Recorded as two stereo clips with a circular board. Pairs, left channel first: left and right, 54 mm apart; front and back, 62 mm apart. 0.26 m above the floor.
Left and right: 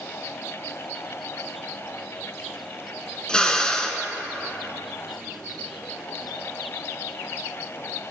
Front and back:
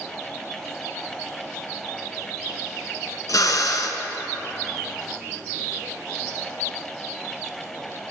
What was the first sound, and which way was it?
A drill, 15° left.